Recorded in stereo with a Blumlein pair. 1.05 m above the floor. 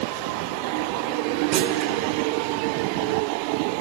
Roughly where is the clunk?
Ahead right.